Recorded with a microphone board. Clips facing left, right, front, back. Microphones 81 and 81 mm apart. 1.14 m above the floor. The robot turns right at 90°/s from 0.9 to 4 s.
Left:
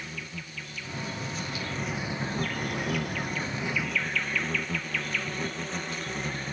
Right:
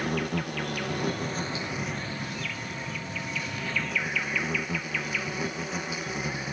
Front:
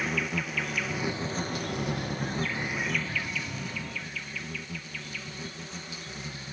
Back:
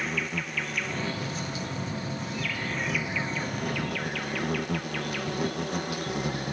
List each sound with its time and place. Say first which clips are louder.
0.0 s an insect: right 11 dB, front 1 dB; 90° right; by 6.5 s 170° right